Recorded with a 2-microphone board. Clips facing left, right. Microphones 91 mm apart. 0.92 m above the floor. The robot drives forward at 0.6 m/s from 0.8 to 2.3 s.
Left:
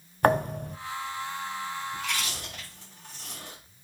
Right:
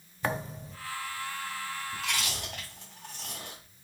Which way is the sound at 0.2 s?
55° left (ahead or behind).